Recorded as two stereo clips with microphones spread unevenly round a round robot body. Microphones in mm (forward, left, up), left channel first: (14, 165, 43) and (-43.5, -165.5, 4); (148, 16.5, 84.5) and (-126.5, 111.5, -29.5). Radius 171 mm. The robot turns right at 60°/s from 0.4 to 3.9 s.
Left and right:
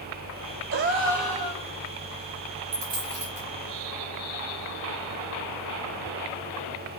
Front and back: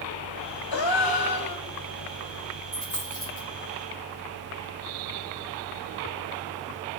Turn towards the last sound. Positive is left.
turn(degrees=-55)